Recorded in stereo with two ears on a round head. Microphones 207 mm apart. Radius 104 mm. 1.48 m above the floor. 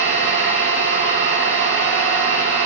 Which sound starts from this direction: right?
An engine running, at 0.0 s.